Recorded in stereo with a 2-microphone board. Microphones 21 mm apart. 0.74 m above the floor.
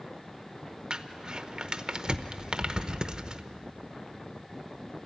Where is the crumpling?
40° right (ahead or behind), 0.8 m.